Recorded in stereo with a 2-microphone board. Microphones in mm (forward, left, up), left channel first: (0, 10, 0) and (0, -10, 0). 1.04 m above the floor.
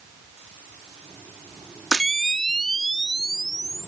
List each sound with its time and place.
1.9 s a camera shutter: 25° left (ahead or behind)